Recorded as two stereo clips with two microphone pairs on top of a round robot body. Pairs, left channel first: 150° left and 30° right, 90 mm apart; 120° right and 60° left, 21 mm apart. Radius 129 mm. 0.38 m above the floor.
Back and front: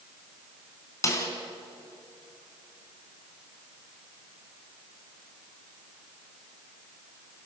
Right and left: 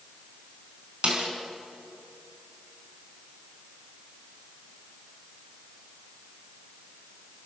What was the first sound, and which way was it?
A snare drum, 95° left.